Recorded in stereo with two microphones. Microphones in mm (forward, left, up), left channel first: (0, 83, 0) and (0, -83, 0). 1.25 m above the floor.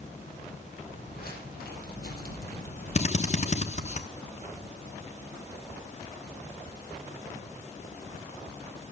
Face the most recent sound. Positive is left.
turn(degrees=45)  # may be behind; listen again after turning